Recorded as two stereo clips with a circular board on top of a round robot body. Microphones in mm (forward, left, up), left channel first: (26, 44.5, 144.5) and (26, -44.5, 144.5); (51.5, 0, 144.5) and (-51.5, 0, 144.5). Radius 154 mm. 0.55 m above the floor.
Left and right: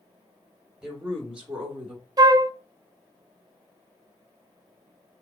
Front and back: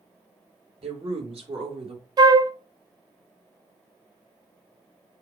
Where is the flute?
130° right, 0.6 m.